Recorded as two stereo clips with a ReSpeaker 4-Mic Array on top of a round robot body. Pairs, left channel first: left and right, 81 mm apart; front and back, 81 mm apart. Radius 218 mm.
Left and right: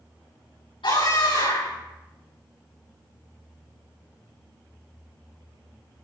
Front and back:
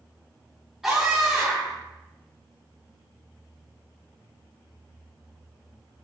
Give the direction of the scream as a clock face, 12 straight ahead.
9 o'clock.